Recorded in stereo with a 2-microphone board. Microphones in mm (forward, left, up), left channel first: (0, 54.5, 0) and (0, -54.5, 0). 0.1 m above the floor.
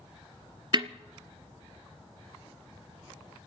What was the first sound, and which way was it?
A snare drum, 45° right (ahead or behind).